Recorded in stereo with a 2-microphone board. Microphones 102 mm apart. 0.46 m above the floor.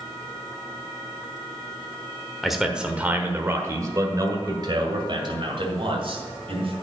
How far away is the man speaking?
About 1.3 m.